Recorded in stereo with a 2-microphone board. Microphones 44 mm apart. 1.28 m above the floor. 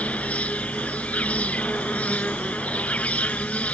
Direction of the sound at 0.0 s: 30° left (ahead or behind).